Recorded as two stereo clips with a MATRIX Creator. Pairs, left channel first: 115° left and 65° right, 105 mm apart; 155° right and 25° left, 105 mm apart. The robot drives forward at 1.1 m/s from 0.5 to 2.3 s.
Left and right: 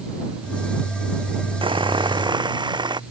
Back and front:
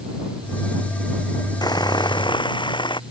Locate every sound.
1.6 s sawing: 105° right; by 3.0 s 115° right